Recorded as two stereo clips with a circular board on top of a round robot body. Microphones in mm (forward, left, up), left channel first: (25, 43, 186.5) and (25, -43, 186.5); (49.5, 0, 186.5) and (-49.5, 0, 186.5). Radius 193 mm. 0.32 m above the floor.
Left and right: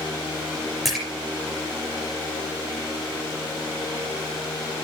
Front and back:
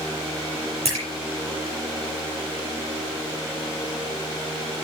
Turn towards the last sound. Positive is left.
turn(degrees=-175)